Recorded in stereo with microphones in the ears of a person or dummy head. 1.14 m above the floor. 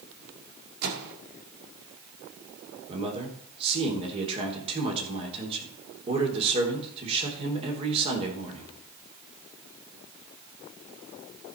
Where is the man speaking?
35° right (ahead or behind), 3 m.